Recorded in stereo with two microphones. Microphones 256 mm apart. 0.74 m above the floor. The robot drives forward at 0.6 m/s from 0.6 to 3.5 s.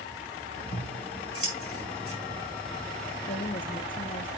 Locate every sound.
0.7 s scissors: 65° left (ahead or behind), 5 m; by 2.2 s 60° left (ahead or behind), 5.5 m
3.3 s a woman speaking: 35° left (ahead or behind), 0.6 m